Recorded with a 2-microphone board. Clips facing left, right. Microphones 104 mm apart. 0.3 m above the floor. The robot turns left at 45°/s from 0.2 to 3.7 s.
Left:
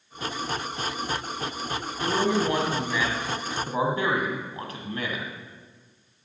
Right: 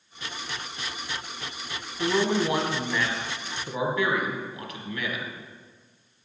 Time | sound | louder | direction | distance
2.0 | a man speaking | even | 145° right | 2 m